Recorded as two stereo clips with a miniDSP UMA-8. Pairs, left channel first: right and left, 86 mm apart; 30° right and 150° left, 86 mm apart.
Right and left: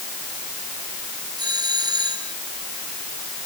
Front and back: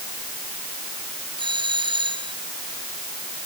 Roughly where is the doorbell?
Behind left.